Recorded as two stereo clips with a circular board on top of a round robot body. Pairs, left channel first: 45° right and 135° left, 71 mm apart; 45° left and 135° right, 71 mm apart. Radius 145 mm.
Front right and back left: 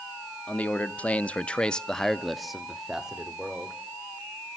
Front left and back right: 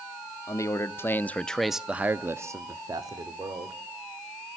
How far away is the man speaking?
About 1.2 m.